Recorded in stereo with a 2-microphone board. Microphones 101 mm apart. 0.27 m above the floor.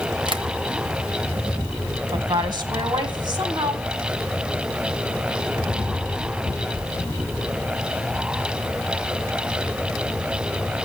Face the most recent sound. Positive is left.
turn(degrees=-50)  # may be behind; listen again after turning